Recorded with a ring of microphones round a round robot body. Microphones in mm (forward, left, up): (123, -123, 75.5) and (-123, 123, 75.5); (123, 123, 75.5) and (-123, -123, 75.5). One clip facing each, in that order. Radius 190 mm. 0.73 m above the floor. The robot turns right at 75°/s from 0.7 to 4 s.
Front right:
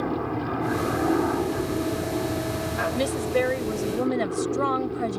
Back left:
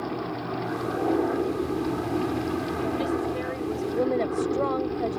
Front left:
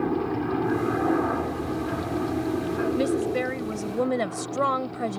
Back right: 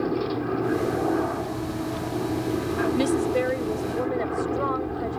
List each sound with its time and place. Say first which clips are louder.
0.0 s a helicopter: front right 4 dB, even; 25° right; by 5.2 s 140° right
2.9 s a woman speaking: front right 7 dB, back right 3 dB; 70° right; by 5.2 s 10° left